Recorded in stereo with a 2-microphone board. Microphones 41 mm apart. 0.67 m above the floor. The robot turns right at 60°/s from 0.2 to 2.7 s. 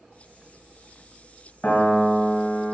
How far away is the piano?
About 0.6 m.